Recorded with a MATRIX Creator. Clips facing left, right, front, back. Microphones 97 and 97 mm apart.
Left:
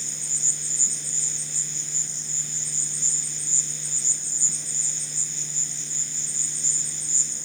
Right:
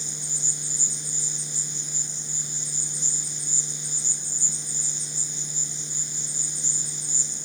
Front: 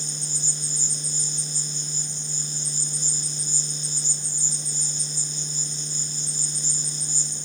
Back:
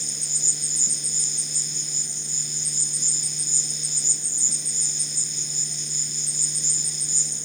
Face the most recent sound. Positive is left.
turn(degrees=-165)